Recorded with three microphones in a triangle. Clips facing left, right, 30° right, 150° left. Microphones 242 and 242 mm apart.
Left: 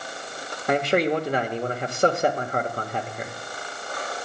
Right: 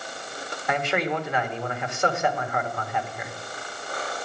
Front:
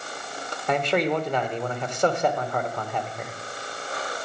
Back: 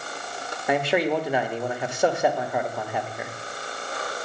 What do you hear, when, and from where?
0.7 s a man speaking: 75° left, 0.9 m